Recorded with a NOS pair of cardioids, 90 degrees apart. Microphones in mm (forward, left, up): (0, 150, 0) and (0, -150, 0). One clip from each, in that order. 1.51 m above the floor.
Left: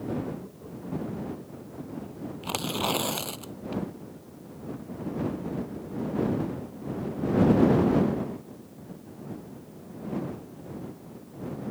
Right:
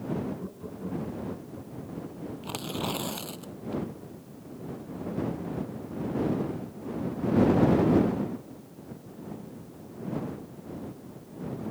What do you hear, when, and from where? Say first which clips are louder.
0.4 s laughter: right 3 dB; 45° right; by 2.0 s 65° right
2.4 s tearing paper: left 5 dB; 40° left